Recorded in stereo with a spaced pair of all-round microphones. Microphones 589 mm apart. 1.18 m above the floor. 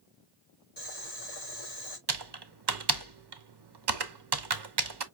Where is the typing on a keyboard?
40° right (ahead or behind), 0.7 m.